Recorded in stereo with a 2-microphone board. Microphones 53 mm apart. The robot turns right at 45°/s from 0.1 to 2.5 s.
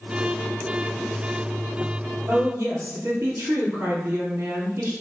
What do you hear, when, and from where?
2.3 s a woman speaking: 55° right (ahead or behind), 3 m; by 4.9 s 60° right (ahead or behind), 3 m